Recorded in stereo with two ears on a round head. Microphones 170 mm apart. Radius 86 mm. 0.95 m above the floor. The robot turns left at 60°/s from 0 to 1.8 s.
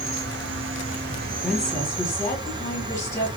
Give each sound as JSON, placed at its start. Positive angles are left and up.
{"t": 0.0, "sound": "an insect", "azimuth_deg": -45, "distance_m": 0.8}
{"t": 1.4, "sound": "a woman speaking", "side_deg": 0, "distance_m": 1.5}